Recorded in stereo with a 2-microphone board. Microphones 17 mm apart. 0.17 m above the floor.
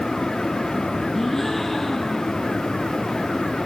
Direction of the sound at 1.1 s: 20° left (ahead or behind).